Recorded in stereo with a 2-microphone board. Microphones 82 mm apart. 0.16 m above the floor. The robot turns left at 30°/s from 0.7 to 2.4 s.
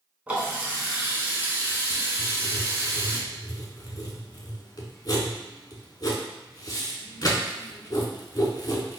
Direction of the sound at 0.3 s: 35° right.